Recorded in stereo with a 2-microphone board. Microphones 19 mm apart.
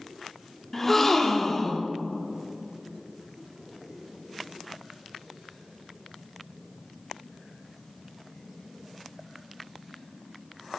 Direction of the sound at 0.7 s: 15° left (ahead or behind).